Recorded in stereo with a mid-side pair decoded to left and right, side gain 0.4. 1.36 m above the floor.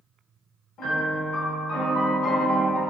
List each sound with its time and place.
0.8 s a piano: 70° left, 0.9 m